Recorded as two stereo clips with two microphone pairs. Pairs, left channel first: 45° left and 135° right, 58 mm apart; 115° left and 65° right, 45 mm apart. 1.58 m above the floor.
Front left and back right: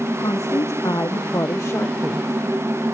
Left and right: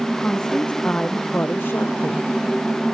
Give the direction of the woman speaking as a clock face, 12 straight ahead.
11 o'clock.